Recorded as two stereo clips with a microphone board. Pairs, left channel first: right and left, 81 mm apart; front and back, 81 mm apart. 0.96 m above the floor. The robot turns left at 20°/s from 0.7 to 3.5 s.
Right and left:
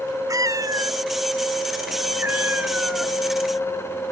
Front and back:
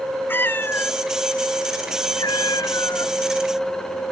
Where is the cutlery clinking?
I don't hear cutlery clinking.